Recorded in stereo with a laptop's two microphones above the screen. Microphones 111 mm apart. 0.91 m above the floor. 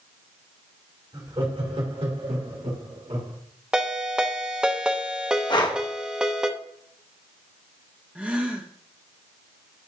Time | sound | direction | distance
1.1 | laughter | 50° right (ahead or behind) | 2.5 m
3.7 | a ringtone | 10° right (ahead or behind) | 0.9 m
5.5 | breathing | 45° left (ahead or behind) | 0.9 m
8.2 | a gasp | 10° right (ahead or behind) | 1.2 m